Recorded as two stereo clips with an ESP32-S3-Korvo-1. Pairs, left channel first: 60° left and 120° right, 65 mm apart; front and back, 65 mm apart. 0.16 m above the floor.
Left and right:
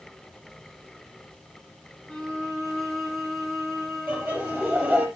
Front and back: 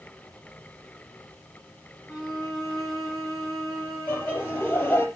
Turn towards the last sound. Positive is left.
turn(degrees=-65)